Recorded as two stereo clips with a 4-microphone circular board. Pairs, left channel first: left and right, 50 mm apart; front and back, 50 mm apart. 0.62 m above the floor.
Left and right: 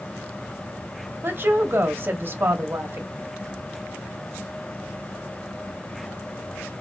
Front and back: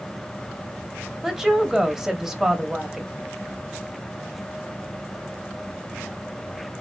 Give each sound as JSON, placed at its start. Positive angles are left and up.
{"t": 1.2, "sound": "a woman speaking", "azimuth_deg": -100, "distance_m": 0.8}